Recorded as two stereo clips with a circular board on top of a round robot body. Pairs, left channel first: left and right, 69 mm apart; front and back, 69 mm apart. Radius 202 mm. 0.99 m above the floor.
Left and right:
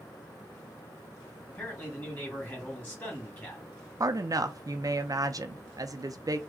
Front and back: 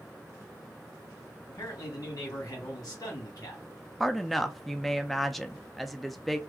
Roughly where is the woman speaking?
Right.